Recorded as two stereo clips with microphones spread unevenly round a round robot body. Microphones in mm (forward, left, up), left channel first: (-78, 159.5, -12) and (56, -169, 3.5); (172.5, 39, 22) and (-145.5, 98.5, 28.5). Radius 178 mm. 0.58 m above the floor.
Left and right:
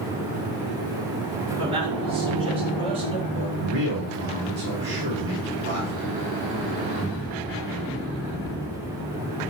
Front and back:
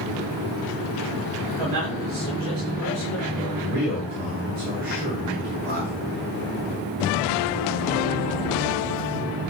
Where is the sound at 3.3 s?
125° right, 5.5 m.